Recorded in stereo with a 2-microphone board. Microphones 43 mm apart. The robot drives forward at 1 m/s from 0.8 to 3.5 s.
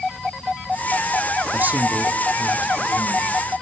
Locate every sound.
1.5 s a man speaking: 45° right (ahead or behind), 1.3 m; by 3.5 s 20° right (ahead or behind), 2.5 m